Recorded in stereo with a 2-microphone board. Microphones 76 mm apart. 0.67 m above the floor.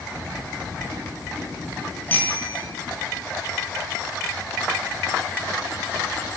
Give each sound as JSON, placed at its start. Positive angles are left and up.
{"t": 2.1, "sound": "a bicycle bell", "side_deg": 25, "distance_m": 5.5}